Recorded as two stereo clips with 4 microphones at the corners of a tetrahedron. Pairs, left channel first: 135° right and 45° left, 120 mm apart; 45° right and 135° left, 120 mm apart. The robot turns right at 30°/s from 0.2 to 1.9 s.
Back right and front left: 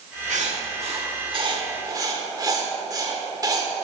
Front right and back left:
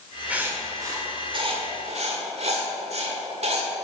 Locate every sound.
0.3 s writing: 55° left, 1.3 m; by 3.7 s 105° left, 1.3 m